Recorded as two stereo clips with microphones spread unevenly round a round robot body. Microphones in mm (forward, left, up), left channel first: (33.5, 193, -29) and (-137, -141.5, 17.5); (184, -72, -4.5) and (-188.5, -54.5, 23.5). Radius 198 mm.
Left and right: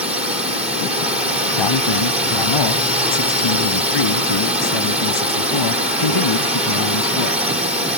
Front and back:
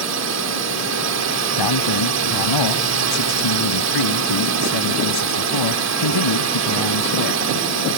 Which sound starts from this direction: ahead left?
A man speaking, at 1.6 s.